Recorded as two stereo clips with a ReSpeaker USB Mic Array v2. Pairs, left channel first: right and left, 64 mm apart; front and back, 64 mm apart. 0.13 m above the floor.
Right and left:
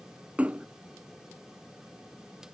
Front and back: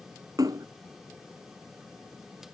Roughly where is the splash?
Behind.